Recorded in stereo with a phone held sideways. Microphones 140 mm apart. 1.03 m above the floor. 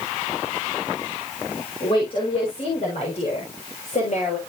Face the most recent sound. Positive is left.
turn(degrees=60)  # may be behind; listen again after turning